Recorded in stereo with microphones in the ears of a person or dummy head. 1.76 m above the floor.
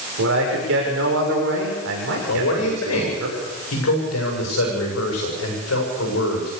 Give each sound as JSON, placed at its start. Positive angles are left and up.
{"t": 0.2, "sound": "a man speaking", "side_deg": -70, "distance_m": 6.5}
{"t": 2.3, "sound": "a man speaking", "side_deg": 80, "distance_m": 7.0}